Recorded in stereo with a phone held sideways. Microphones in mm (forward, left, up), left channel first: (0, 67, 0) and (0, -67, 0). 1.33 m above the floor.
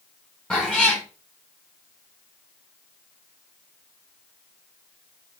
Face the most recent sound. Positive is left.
turn(degrees=10)  # may be behind; listen again after turning